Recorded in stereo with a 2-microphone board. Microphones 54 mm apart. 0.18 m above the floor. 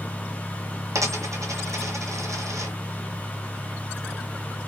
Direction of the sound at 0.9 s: 85° right.